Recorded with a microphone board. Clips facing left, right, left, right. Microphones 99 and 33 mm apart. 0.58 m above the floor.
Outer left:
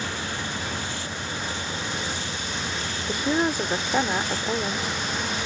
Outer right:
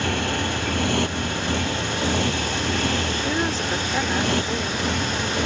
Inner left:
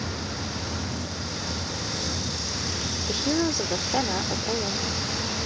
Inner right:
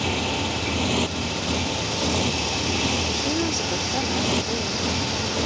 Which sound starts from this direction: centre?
A woman speaking, at 3.1 s.